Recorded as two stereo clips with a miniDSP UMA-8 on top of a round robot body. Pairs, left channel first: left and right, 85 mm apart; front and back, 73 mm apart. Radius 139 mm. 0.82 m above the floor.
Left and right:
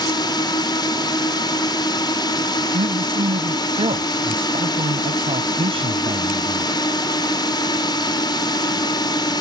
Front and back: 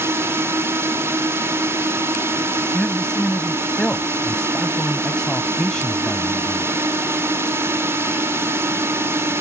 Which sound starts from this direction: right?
A man speaking, at 2.7 s.